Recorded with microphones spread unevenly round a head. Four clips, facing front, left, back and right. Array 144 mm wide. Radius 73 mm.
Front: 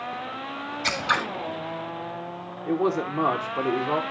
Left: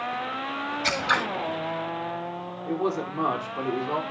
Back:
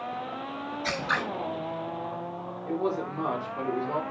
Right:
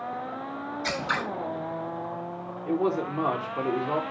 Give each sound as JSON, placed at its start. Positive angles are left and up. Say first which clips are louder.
{"t": 0.8, "sound": "scissors", "louder": "left 4 dB, front 4 dB", "azimuth_deg": 15, "distance_m": 8.0}
{"t": 2.7, "sound": "a man speaking", "louder": "right 2 dB, front 5 dB", "azimuth_deg": -25, "distance_m": 3.0}